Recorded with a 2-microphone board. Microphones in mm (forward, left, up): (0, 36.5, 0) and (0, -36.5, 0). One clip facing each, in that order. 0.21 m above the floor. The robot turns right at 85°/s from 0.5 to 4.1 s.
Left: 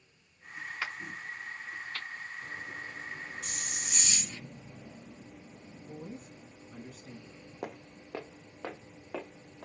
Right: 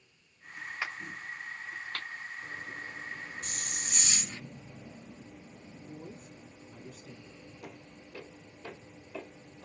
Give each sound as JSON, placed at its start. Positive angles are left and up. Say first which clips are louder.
{"t": 0.8, "sound": "a crack", "louder": "right 1 dB", "side_deg": -10, "distance_m": 3.5}
{"t": 3.4, "sound": "a hiss", "louder": "even", "azimuth_deg": -120, "distance_m": 1.7}
{"t": 5.8, "sound": "a woman speaking", "louder": "left 3 dB", "side_deg": 55, "distance_m": 3.5}
{"t": 7.6, "sound": "footsteps", "louder": "left 9 dB", "side_deg": 70, "distance_m": 0.6}